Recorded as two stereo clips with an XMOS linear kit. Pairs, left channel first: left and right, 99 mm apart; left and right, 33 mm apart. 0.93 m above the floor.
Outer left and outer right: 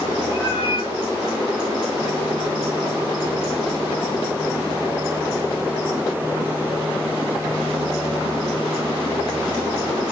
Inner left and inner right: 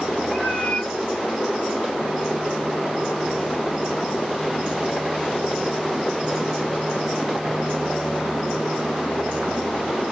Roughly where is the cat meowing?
Left.